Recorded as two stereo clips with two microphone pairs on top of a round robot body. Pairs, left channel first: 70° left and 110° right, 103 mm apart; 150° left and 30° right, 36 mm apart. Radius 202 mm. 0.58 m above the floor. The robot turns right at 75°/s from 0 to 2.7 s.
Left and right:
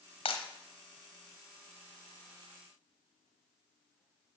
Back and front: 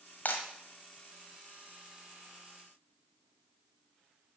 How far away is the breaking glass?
About 1.4 m.